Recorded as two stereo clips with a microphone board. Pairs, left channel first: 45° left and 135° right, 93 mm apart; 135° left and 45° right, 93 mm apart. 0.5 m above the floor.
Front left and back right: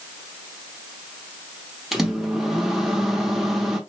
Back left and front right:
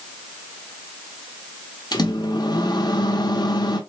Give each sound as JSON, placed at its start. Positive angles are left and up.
{"t": 1.9, "sound": "a microwave", "azimuth_deg": 135, "distance_m": 0.8}